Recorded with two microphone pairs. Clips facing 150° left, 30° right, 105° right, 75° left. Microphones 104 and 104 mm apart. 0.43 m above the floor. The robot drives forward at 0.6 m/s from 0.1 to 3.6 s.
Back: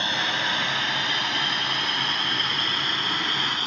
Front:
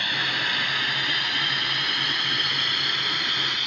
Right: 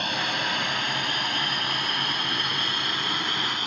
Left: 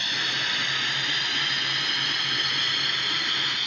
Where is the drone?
145° right; by 3.7 s 155° right.